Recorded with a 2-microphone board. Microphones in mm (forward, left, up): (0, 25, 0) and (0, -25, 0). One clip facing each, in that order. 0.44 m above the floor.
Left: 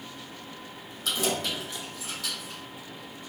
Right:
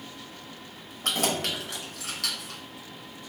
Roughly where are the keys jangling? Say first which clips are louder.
Right 1 dB; right.